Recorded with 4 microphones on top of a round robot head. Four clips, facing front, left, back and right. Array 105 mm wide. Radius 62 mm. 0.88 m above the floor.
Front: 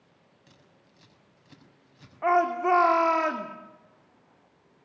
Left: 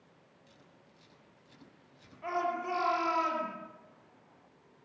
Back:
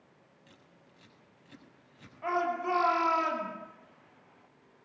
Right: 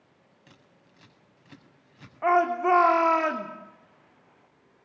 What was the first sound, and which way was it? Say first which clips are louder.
Scissors: right 5 dB, front 1 dB; 75° right.